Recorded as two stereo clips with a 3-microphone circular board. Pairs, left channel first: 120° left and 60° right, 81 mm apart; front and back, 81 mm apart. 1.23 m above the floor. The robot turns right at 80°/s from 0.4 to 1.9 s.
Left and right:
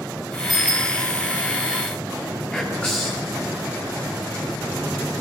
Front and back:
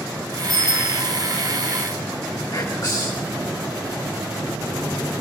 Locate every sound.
0.5 s a bicycle bell: 25° left, 4.5 m; by 0.9 s 65° left, 4.5 m
2.5 s whispering: 45° left, 3 m